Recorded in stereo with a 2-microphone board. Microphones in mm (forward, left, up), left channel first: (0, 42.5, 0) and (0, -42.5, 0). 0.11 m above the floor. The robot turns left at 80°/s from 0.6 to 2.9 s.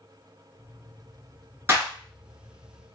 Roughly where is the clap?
Right.